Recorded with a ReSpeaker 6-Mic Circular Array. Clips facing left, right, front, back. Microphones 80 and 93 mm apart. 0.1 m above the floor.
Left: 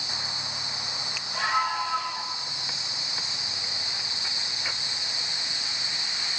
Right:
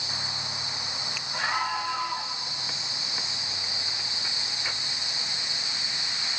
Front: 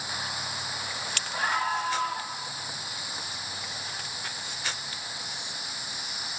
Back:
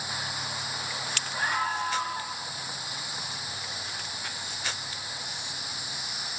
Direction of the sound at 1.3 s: 5° right.